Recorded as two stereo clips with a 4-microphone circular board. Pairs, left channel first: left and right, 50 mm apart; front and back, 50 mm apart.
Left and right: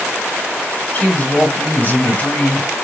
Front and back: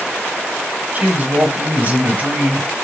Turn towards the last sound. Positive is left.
turn(degrees=125)